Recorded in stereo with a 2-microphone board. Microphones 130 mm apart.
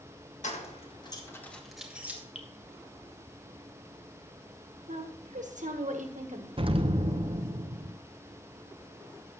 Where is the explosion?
45° right (ahead or behind), 0.6 m.